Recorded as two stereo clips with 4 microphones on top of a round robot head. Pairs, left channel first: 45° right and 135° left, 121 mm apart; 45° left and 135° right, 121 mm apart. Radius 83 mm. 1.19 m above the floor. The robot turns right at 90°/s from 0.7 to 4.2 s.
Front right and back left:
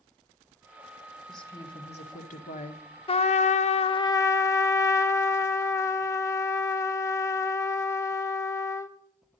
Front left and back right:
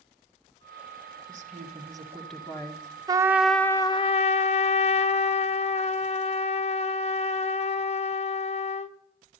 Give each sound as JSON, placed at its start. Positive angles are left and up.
{"t": 1.3, "sound": "a woman speaking", "azimuth_deg": -135, "distance_m": 1.4}
{"t": 3.1, "sound": "a trumpet", "azimuth_deg": -80, "distance_m": 0.6}